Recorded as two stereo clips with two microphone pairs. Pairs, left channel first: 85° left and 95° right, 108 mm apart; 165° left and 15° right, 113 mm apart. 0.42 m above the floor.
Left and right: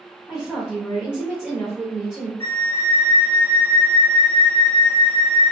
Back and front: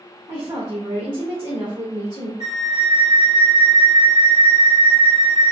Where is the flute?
150° left, 1.4 m.